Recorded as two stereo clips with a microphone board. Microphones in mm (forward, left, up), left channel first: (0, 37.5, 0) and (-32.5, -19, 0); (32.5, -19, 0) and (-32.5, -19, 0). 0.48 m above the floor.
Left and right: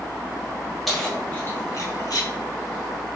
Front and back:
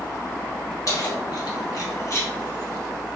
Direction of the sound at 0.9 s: 30° right.